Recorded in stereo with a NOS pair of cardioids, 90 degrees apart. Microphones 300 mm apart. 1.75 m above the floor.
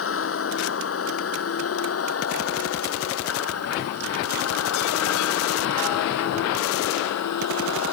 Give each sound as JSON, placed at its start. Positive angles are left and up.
{"t": 0.0, "sound": "a vehicle", "azimuth_deg": 45}